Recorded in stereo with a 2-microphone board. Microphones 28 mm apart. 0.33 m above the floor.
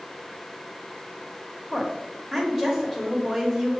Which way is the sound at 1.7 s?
5° left (ahead or behind).